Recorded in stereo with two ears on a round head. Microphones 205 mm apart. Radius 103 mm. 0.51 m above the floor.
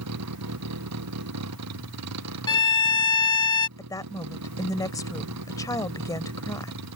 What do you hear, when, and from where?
0.0 s a vehicle: 80° right; by 7.0 s 85° right
2.5 s a violin: 20° left (ahead or behind)
3.8 s a woman speaking: 15° left (ahead or behind)